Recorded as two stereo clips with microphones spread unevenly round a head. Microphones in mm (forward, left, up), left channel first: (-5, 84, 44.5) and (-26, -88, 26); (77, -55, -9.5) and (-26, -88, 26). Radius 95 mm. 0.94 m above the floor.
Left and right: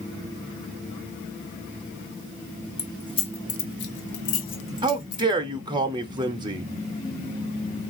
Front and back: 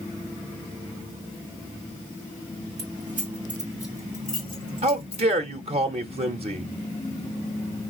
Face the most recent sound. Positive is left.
turn(degrees=-140)